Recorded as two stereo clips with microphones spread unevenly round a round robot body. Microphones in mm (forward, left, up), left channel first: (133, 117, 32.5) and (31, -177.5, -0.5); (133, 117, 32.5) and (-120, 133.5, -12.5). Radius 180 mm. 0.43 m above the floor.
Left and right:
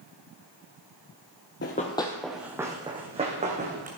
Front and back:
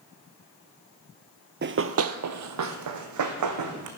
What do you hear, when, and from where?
1.6 s running footsteps: 125° left, 0.7 m; by 3.9 s straight behind, 2 m